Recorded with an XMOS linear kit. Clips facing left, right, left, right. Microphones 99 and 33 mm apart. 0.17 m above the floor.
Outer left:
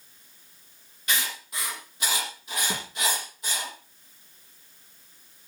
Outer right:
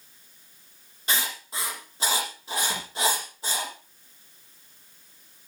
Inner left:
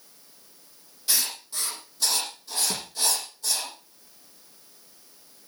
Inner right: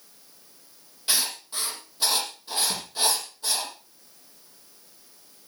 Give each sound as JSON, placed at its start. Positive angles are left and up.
{"t": 1.1, "sound": "writing", "side_deg": -30, "distance_m": 5.0}
{"t": 2.7, "sound": "a thud", "side_deg": 25, "distance_m": 3.5}